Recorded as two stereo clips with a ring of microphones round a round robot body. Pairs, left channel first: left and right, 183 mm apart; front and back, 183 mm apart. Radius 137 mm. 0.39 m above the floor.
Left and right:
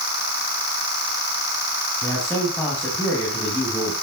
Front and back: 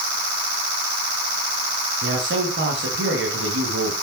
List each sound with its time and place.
2.0 s a man speaking: 170° left, 3 m